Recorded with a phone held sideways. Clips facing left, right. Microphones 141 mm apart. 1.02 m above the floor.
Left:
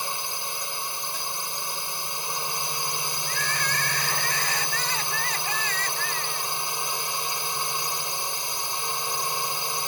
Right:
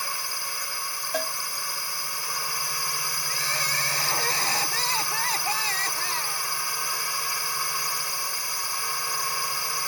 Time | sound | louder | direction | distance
0.0 | a drone | left 2 dB | 20° left (ahead or behind) | ?
1.1 | a cowbell | right 7 dB | 75° right (ahead or behind) | ?
3.3 | crying | left 2 dB | 35° right (ahead or behind) | ?